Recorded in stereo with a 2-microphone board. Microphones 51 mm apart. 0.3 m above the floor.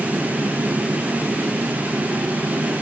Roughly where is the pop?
No pop in this recording.